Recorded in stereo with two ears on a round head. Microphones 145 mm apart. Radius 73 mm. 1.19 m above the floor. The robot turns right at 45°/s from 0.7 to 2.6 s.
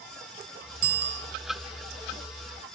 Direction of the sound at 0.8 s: 60° right (ahead or behind).